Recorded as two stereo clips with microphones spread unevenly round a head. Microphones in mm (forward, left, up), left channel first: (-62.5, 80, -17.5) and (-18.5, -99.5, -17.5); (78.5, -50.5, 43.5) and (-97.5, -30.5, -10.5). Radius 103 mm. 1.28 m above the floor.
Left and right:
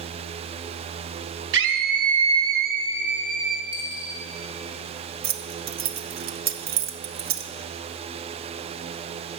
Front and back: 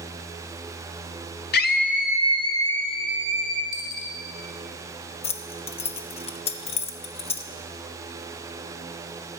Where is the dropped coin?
5° left, 1.8 m.